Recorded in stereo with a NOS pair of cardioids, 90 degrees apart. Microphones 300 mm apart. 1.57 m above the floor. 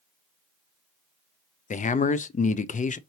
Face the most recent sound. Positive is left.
turn(degrees=25)